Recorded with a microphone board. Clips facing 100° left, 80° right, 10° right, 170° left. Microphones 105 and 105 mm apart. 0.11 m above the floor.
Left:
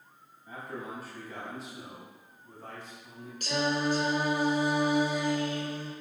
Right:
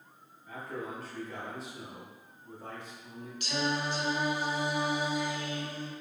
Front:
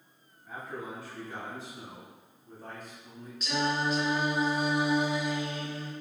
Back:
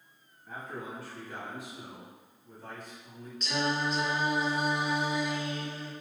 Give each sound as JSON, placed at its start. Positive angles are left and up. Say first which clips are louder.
{"t": 0.5, "sound": "a man speaking", "louder": "right 1 dB, front 1 dB", "azimuth_deg": 70, "distance_m": 1.7}
{"t": 3.4, "sound": "singing", "louder": "left 3 dB, front 1 dB", "azimuth_deg": 75, "distance_m": 1.0}